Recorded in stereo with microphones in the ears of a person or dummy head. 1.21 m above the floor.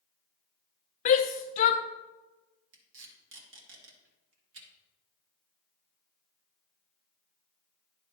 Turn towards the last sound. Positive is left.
turn(degrees=-65)  # may be behind; listen again after turning